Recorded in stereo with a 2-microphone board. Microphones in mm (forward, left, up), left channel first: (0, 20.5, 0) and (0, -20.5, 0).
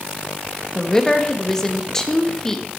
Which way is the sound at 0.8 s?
15° left (ahead or behind).